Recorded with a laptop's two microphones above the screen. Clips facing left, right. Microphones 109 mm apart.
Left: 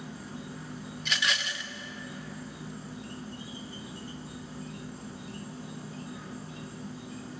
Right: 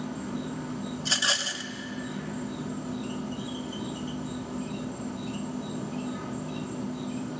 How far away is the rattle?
About 0.7 m.